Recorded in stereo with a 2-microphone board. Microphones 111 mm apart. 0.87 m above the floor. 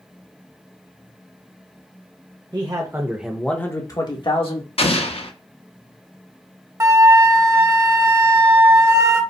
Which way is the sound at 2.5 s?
40° right (ahead or behind).